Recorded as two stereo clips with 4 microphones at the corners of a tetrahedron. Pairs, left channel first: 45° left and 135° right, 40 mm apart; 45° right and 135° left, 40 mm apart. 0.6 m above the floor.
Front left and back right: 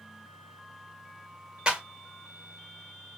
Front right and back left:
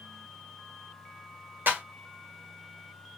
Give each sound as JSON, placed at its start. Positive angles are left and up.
{"t": 1.7, "sound": "a clap", "azimuth_deg": 160, "distance_m": 1.9}